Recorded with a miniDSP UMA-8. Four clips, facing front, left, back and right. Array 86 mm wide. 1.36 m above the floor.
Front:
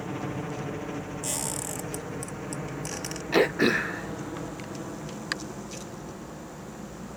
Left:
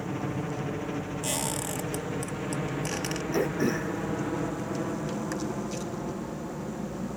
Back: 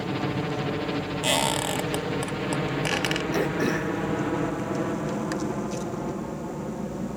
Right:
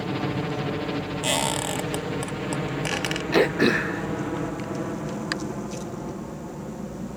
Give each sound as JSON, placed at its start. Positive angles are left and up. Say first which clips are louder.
{"t": 0.0, "sound": "a helicopter", "louder": "right 5 dB, back 5 dB", "azimuth_deg": -130}
{"t": 1.2, "sound": "a squeak", "louder": "right 6 dB, back 10 dB", "azimuth_deg": -145}
{"t": 3.3, "sound": "throat clearing", "louder": "right 7 dB, front 5 dB", "azimuth_deg": -60}